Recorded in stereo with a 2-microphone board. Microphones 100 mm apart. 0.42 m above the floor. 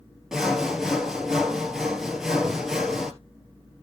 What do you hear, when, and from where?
0.3 s sawing: 5° right (ahead or behind), 1.9 m